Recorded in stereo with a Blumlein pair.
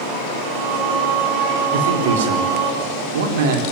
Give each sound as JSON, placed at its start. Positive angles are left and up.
{"t": 0.4, "sound": "singing", "azimuth_deg": -40, "distance_m": 4.5}
{"t": 1.7, "sound": "a man speaking", "azimuth_deg": -55, "distance_m": 4.0}